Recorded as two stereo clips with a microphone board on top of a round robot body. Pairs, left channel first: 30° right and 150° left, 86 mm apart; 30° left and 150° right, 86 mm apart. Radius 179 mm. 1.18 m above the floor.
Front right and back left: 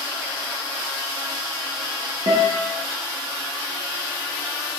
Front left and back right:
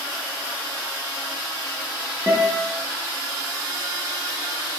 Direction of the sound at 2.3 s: 140° left.